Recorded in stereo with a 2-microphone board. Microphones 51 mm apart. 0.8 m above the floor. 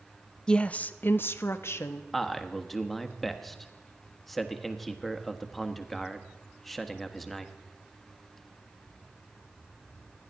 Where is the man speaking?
Centre (ahead or behind), 1.2 m.